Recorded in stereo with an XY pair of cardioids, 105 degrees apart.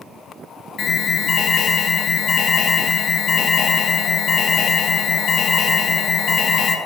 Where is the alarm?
50° left, 2.5 m.